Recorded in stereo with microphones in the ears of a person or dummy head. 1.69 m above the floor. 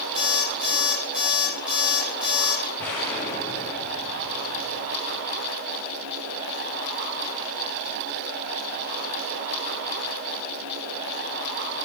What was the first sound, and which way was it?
An alarm clock, 5° right (ahead or behind).